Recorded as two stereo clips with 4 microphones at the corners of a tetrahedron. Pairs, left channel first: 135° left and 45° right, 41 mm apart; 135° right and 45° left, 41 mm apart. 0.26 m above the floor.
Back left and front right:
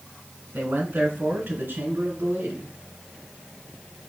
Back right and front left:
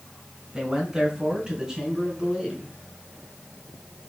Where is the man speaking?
30° right, 3 m.